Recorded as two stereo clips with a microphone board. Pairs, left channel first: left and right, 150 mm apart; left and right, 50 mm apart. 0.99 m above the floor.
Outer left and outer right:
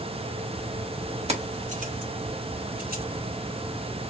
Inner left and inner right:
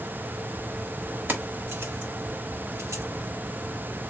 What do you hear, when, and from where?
1.3 s keys jangling: 45° right (ahead or behind), 1.5 m; by 3.0 s 85° right, 1.6 m